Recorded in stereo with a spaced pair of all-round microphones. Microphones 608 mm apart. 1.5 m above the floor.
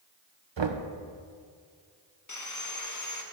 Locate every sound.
0.6 s knocking: 50° right (ahead or behind), 0.6 m
2.3 s sawing: 30° left (ahead or behind), 0.8 m